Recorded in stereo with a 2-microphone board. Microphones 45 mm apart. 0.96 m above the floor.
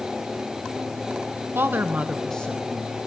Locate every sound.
1.6 s a woman speaking: 60° right (ahead or behind), 1.1 m; by 3.1 s 50° left (ahead or behind), 1.5 m